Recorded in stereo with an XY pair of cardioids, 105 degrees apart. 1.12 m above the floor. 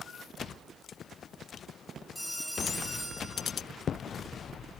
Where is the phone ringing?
10° right, 3 m.